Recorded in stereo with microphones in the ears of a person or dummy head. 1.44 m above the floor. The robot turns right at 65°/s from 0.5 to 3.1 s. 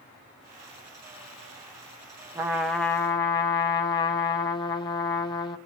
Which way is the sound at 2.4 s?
25° right.